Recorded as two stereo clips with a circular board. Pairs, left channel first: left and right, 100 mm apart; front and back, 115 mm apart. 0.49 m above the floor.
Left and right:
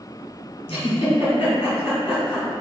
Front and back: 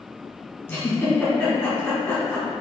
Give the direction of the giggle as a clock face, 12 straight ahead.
10 o'clock.